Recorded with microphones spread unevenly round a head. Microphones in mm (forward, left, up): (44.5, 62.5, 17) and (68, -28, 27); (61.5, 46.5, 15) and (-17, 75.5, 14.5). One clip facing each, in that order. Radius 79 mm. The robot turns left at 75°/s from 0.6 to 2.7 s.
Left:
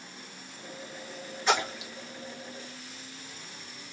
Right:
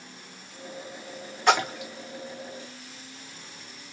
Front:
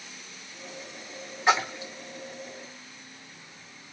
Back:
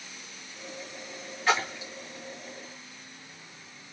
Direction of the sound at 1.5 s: 90° right.